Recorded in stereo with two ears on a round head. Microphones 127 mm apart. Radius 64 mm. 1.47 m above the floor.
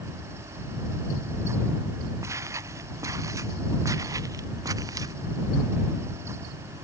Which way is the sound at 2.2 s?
20° right (ahead or behind).